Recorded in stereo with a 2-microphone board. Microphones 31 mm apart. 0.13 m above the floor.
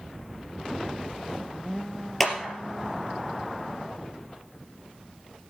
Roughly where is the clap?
Centre.